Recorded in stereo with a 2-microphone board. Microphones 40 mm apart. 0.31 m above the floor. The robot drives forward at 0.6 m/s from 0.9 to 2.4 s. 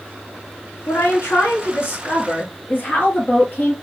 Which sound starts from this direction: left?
A woman speaking, at 0.9 s.